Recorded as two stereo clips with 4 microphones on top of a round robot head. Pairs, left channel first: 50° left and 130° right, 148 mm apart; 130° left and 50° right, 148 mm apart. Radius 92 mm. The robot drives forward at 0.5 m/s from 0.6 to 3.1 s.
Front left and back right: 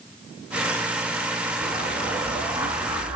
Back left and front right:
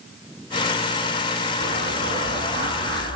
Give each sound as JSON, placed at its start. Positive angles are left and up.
{"t": 1.6, "sound": "an explosion", "azimuth_deg": -55, "distance_m": 4.5}